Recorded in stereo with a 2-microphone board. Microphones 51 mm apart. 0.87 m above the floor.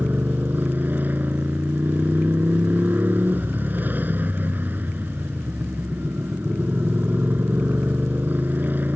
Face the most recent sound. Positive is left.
turn(degrees=-35)  # may be behind; listen again after turning